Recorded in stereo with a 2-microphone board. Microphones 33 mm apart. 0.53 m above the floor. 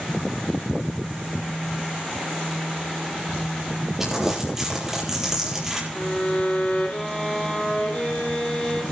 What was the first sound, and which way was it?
Crumpling, 10° right (ahead or behind).